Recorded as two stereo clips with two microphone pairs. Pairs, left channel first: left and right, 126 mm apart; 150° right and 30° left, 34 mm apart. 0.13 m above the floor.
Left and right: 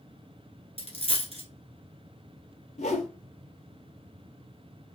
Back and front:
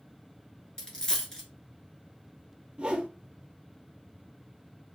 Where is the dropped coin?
95° right, 0.9 m.